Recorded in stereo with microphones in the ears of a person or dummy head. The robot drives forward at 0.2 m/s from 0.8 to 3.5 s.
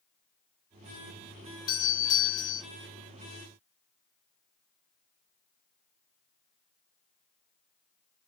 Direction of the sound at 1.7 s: 20° left (ahead or behind).